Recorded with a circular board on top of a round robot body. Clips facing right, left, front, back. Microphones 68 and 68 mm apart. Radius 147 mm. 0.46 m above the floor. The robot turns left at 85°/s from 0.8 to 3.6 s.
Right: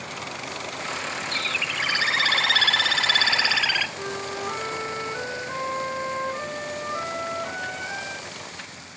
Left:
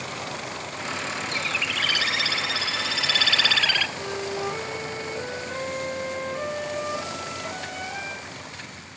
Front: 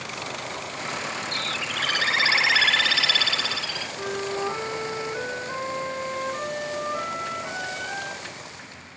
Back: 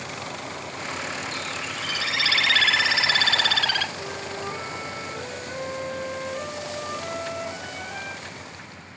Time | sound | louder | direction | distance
1.3 | a bird | even, front 2 dB | 25° left | 1.1 m
4.0 | a flute | left 1 dB, front 5 dB | 45° right | 3 m